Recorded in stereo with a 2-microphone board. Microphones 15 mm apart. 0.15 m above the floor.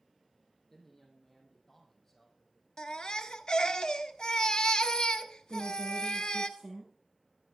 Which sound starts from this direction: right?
A woman speaking, at 5.5 s.